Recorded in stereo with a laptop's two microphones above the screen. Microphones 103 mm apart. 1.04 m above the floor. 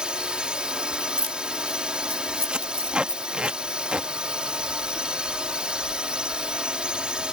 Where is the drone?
10° right (ahead or behind).